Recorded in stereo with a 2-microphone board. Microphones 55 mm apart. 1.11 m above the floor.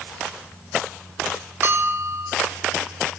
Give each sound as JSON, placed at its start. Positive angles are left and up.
{"t": 1.6, "sound": "a bell", "side_deg": -45, "distance_m": 0.8}